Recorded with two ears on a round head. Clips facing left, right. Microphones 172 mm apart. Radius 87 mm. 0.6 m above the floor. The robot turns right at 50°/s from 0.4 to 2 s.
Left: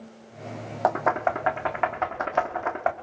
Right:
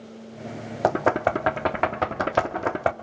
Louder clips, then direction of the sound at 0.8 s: Right 2 dB; 35° right (ahead or behind).